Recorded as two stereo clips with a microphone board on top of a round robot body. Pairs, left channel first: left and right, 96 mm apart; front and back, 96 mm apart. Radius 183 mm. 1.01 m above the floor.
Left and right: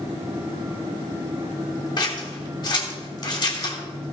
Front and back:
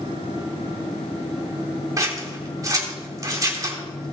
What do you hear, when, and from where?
2.0 s scissors: 130° left, 3 m